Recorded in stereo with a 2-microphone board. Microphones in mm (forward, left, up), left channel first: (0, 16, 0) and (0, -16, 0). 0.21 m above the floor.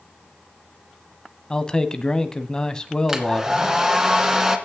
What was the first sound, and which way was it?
A man speaking, 20° left (ahead or behind).